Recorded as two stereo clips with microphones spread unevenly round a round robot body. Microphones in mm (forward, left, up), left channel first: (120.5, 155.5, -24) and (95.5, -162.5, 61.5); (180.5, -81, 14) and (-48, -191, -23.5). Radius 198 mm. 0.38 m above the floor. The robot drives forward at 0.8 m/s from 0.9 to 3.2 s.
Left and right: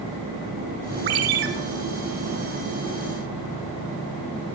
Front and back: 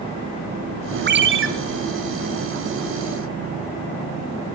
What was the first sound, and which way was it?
A ringtone, 110° right.